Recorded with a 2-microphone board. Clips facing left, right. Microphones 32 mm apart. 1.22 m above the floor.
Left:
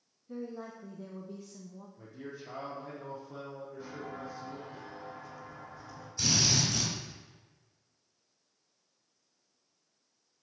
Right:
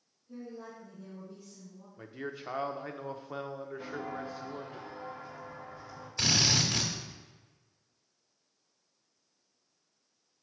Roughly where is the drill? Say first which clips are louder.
Right 2 dB; right.